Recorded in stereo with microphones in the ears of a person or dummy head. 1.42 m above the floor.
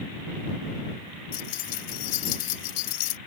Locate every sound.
1.3 s keys jangling: 45° left (ahead or behind)